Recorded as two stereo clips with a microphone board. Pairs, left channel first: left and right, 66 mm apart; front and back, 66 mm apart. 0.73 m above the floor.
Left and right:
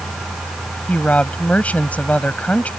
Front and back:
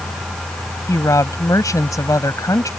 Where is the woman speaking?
25° left.